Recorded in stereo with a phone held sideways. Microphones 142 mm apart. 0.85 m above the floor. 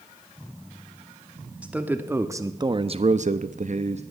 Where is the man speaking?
10° right (ahead or behind), 1.6 m; by 4.0 s 50° right (ahead or behind), 1.0 m.